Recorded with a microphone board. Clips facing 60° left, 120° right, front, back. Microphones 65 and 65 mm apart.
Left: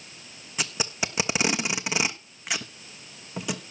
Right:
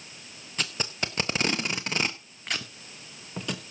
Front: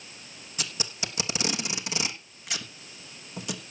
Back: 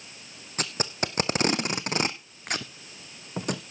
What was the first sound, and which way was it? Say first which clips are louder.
Tape being pulled: left 2 dB, back 6 dB; 140° left.